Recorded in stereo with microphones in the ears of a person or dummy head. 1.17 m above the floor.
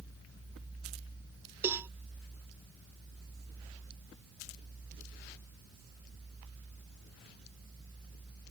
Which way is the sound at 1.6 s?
15° right (ahead or behind).